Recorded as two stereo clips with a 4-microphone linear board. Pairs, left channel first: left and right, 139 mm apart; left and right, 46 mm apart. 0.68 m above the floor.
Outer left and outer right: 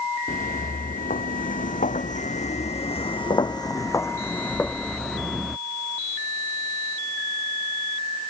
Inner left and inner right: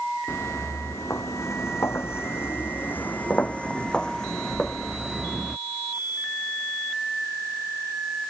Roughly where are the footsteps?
Left.